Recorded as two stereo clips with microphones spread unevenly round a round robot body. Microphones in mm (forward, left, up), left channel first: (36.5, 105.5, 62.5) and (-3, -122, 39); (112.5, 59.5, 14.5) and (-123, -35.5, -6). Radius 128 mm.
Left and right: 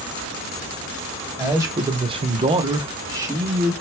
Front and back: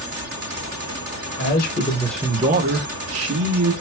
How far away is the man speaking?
About 1.0 m.